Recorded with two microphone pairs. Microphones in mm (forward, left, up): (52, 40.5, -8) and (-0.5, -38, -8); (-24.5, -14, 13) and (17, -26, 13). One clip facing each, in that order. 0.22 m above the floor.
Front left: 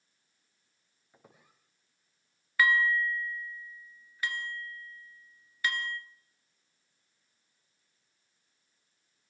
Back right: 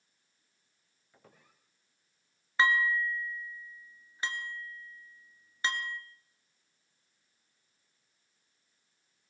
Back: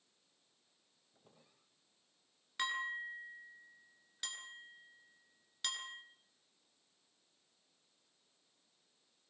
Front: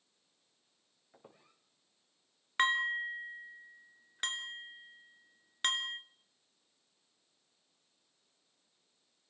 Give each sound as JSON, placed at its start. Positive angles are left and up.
{"t": 1.1, "sound": "a squeak", "azimuth_deg": -20, "distance_m": 5.5}
{"t": 2.6, "sound": "dishes clattering", "azimuth_deg": -60, "distance_m": 1.9}